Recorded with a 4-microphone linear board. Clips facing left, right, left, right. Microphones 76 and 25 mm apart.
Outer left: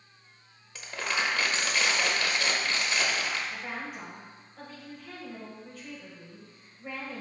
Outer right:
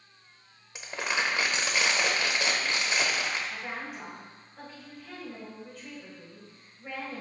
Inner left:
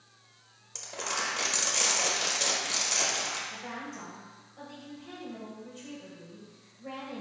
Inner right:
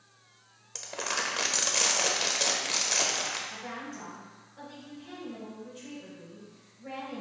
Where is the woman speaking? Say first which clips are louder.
Even, even; centre (ahead or behind), 1.8 m.